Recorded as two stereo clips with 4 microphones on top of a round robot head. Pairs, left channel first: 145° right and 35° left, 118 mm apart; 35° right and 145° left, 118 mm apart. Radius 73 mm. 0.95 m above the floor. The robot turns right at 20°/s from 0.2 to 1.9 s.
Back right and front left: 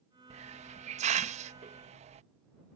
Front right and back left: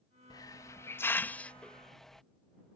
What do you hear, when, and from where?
0.3 s a hiss: 20° left; by 2.2 s 50° left